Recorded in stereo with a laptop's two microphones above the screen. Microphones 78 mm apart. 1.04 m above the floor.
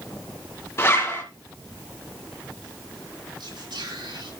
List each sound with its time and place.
0.8 s a zipper: 35° left (ahead or behind), 2.5 m
3.4 s whispering: 75° right (ahead or behind), 7 m